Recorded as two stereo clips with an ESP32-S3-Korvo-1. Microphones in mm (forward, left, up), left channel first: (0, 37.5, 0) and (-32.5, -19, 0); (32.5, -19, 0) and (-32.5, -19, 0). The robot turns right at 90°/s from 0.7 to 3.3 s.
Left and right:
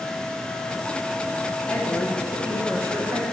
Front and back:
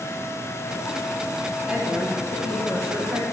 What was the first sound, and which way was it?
A woman speaking, 125° left.